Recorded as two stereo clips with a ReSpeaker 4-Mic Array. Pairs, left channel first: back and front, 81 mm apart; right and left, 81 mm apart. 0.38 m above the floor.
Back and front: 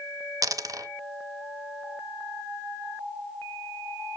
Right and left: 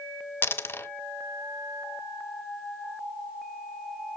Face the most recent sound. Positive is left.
turn(degrees=-30)